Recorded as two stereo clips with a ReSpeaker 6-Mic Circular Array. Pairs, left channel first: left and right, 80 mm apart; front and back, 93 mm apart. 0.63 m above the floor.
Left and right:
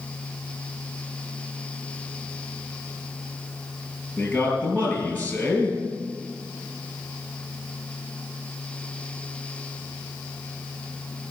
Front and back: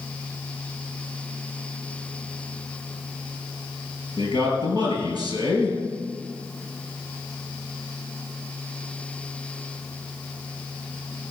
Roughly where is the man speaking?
Ahead left.